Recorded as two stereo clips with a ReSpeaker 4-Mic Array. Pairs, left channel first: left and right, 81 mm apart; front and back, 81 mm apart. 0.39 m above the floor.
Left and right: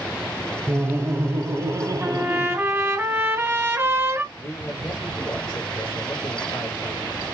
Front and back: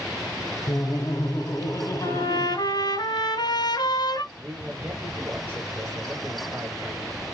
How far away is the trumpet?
About 1.6 m.